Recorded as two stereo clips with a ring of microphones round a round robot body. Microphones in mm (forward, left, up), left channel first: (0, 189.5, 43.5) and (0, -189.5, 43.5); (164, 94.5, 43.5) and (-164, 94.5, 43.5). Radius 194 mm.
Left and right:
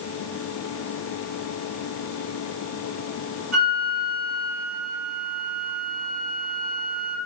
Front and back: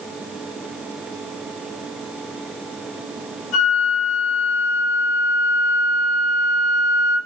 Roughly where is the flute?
Ahead right.